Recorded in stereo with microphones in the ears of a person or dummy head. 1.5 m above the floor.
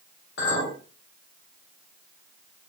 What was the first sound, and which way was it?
A clink, 65° left (ahead or behind).